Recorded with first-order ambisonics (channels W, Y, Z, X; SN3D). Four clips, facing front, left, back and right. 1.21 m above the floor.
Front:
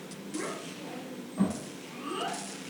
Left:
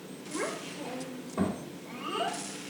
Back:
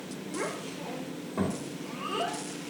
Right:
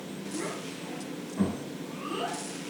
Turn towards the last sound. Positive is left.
turn(degrees=175)